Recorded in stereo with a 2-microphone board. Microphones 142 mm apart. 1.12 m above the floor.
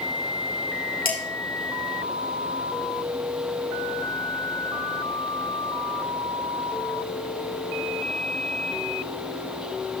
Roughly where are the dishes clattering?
Left.